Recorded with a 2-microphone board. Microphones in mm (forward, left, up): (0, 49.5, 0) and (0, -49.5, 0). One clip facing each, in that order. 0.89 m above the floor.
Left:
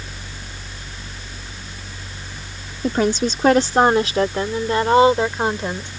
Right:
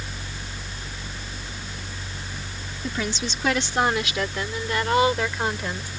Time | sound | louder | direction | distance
2.8 | a woman speaking | left 10 dB | 50° left (ahead or behind) | ?